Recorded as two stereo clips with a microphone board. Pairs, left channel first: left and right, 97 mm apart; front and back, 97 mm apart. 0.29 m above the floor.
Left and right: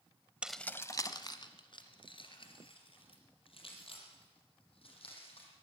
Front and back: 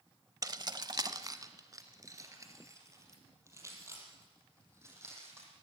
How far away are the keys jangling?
About 0.7 m.